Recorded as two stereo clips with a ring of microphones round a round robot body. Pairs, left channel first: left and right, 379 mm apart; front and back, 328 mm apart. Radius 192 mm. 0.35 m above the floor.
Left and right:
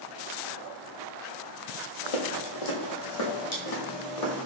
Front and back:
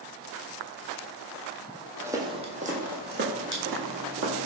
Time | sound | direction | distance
2.0 | footsteps | 95° left | 0.9 m